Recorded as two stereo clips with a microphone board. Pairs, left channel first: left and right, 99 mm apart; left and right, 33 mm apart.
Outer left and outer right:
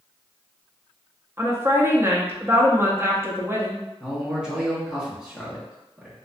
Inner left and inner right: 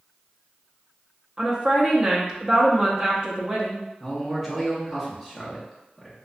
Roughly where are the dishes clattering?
I don't hear dishes clattering.